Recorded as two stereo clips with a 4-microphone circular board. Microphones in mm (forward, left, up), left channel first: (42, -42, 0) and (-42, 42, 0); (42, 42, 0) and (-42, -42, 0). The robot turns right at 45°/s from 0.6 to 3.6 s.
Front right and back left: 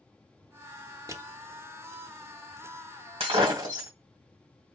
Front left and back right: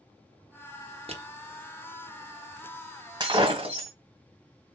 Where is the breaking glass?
170° left, 1.9 m; by 3.9 s 170° right, 1.9 m.